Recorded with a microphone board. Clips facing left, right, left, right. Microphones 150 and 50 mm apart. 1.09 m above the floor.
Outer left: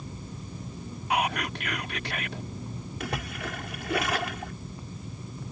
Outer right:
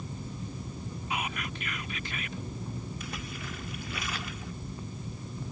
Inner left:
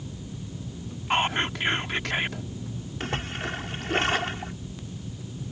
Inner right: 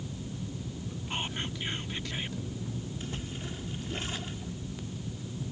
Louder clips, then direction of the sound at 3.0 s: Outer left 6 dB, inner left 8 dB; 75° left (ahead or behind).